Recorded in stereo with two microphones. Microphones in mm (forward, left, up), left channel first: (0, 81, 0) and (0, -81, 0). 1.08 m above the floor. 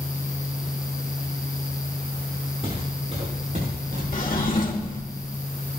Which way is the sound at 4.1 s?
55° left (ahead or behind).